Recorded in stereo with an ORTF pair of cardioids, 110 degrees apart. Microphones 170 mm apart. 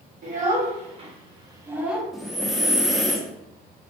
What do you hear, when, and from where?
0.2 s a child speaking: 50° right, 1.4 m; by 2.0 s straight ahead, 0.6 m
2.1 s breathing: straight ahead, 0.6 m